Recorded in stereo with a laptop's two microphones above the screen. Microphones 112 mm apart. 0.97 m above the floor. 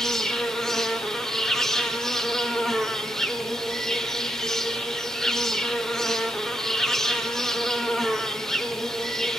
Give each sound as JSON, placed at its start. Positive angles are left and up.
{"t": 0.0, "sound": "an insect", "side_deg": 5, "distance_m": 1.6}